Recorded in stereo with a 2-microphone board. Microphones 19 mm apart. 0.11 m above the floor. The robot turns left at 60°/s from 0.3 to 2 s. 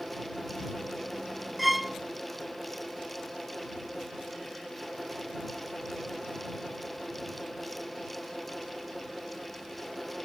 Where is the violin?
5° right (ahead or behind); by 2.0 s 10° right (ahead or behind).